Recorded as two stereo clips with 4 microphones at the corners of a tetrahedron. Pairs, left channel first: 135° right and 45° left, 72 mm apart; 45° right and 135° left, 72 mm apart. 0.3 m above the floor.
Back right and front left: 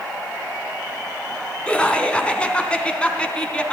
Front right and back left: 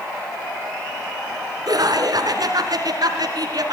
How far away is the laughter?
About 3 m.